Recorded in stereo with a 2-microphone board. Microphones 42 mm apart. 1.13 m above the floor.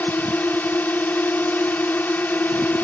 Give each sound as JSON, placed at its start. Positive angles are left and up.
{"t": 0.0, "sound": "a drone", "side_deg": 45}